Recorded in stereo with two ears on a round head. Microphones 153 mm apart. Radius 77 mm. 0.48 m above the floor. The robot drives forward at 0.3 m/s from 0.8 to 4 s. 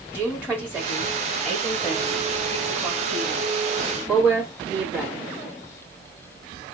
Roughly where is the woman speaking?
Centre.